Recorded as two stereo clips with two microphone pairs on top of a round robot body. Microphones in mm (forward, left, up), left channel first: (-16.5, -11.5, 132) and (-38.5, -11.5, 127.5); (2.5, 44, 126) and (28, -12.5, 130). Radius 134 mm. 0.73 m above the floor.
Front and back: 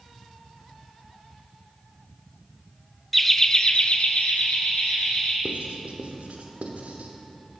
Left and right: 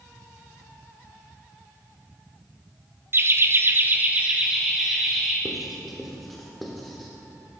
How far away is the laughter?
About 1.0 m.